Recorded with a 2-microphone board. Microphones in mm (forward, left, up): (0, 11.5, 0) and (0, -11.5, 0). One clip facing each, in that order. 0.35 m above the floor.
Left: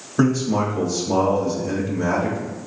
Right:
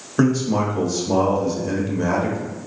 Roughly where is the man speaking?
Right.